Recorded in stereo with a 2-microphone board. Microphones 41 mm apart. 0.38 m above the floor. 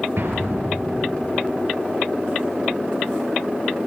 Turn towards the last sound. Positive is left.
turn(degrees=-75)  # may be behind; listen again after turning